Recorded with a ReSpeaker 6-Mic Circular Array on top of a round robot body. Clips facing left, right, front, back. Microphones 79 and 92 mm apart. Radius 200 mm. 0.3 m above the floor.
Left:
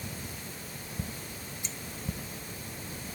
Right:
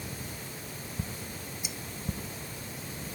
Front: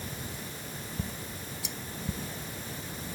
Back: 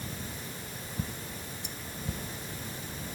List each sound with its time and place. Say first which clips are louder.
1.6 s cutlery clinking: right 2 dB, front 2 dB; 10° right